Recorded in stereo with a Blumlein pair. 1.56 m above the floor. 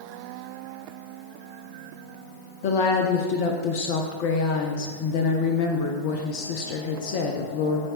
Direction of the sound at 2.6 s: 50° left.